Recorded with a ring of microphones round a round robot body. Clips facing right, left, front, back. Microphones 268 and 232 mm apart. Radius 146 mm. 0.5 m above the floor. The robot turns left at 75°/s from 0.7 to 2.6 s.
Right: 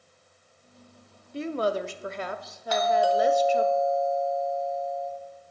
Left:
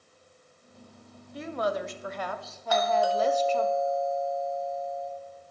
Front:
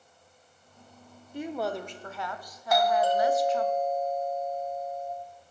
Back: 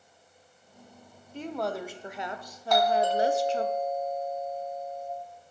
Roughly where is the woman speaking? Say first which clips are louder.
Right 3 dB, front 1 dB; ahead right.